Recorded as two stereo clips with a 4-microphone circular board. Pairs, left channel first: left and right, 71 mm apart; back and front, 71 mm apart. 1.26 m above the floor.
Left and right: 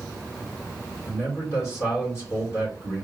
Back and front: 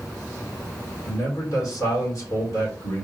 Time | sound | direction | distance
1.1 | a man speaking | 140° left | 3 m